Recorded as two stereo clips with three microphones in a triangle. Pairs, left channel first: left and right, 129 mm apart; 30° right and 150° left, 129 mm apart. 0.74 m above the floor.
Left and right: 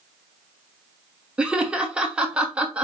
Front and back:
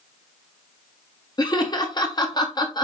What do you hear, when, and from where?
1.4 s laughter: 15° right, 1.1 m